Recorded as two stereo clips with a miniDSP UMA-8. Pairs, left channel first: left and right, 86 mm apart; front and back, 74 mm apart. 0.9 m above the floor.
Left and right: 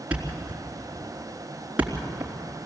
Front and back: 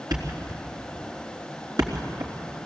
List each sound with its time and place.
0.1 s a thud: 165° right, 3.5 m